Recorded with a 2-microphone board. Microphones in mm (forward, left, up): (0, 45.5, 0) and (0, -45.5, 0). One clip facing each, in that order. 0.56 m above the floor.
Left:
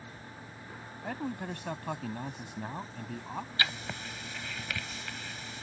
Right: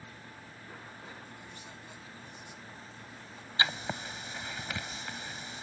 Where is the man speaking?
75° left (ahead or behind).